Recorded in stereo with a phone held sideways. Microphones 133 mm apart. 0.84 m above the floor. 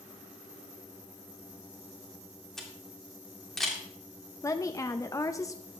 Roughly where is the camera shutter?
Centre.